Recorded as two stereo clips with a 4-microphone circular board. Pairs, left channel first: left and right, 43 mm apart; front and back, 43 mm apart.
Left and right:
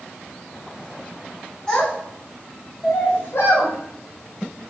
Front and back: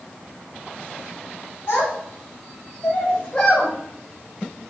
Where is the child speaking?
20° left, 1.7 m; by 3.7 s 95° left, 1.1 m.